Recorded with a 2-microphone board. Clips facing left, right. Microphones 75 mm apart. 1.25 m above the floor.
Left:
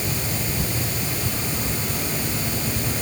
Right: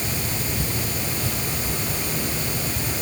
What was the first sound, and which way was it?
Only background noise.